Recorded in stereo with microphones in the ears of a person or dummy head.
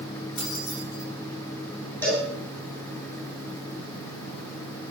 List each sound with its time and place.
0.4 s keys jangling: 65° left (ahead or behind), 8 m
2.0 s a cowbell: 10° left (ahead or behind), 7.5 m